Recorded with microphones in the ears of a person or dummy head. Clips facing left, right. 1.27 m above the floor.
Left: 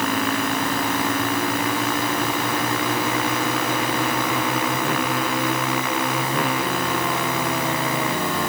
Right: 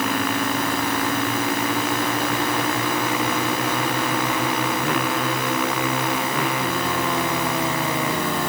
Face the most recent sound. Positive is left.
No sound to turn to.